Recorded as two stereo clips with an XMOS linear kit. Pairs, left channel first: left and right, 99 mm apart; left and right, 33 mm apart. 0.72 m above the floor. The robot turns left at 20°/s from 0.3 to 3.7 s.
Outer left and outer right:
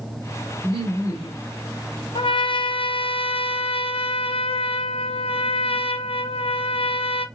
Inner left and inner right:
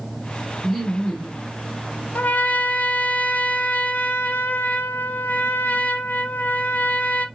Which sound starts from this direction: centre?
Laughter, at 0.6 s.